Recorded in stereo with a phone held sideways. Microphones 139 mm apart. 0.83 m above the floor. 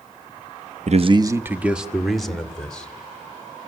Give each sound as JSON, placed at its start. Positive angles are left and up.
{"t": 0.9, "sound": "a man speaking", "side_deg": -55, "distance_m": 0.6}